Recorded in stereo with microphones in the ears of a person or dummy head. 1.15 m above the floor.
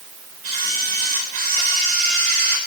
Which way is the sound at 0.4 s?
55° right (ahead or behind).